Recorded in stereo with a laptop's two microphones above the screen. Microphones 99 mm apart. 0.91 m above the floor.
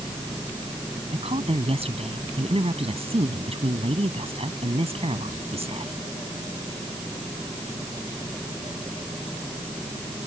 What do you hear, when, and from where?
1.1 s a woman speaking: 85° right